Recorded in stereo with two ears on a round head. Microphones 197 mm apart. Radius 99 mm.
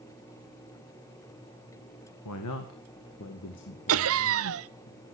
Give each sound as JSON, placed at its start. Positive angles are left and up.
{"t": 2.2, "sound": "a man speaking", "side_deg": 85, "distance_m": 1.8}
{"t": 3.9, "sound": "laughter", "side_deg": -70, "distance_m": 0.7}